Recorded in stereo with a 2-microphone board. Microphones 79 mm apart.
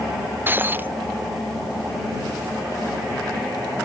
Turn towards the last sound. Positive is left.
turn(degrees=-25)  # may be behind; listen again after turning